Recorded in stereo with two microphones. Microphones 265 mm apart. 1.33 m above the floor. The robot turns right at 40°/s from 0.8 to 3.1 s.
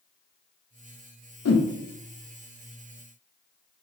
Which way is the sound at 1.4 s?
65° left (ahead or behind).